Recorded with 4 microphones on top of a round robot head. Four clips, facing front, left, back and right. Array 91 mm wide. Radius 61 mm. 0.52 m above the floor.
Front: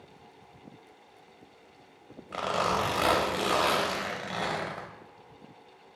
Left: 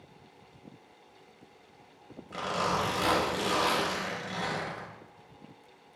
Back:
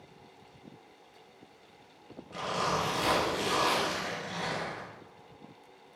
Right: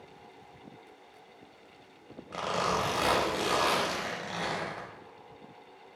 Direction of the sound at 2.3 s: 25° right.